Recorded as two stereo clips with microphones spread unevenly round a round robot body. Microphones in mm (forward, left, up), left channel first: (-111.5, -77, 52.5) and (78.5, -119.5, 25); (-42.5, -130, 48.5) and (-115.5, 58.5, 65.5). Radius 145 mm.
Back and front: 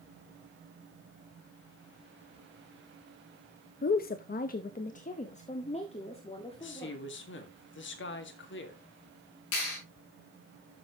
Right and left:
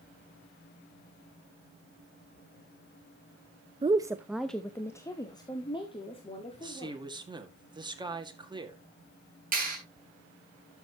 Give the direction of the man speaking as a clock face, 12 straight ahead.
6 o'clock.